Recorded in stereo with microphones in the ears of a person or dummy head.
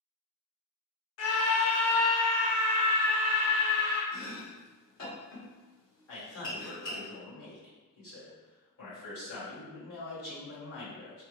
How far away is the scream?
About 0.8 m.